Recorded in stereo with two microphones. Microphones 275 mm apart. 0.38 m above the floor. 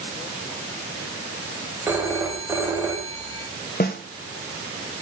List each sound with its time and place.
1.9 s a phone ringing: 10° right (ahead or behind), 1.1 m
3.8 s a snare drum: 35° left (ahead or behind), 0.9 m